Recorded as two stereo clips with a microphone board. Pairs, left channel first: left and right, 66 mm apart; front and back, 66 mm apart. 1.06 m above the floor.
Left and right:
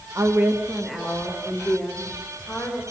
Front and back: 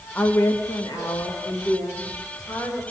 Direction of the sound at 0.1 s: 60° right.